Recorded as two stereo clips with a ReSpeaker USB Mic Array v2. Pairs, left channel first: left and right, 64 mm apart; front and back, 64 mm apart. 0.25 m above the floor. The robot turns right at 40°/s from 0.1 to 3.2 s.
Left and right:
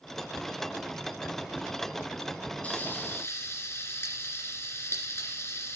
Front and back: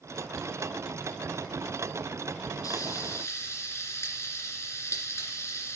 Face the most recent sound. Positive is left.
turn(degrees=40)